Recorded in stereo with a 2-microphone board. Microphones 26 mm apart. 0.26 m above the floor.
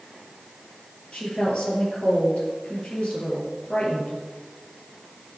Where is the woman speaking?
50° left (ahead or behind), 6.5 m.